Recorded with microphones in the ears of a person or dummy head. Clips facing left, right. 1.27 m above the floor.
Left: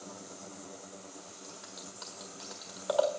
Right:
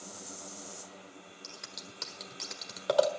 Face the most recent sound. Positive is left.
turn(degrees=-35)  # may be behind; listen again after turning